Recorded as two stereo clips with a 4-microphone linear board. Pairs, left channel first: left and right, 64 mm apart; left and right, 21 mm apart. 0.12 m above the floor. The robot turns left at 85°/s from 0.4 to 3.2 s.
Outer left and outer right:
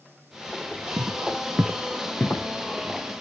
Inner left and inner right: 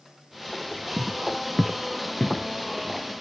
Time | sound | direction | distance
1.0 | footsteps | 80° right | 0.9 m